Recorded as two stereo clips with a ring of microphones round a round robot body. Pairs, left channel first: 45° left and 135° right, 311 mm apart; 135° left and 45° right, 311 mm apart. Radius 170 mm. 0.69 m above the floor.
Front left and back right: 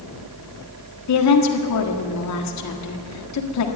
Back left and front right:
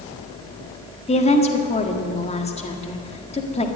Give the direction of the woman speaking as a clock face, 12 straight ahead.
10 o'clock.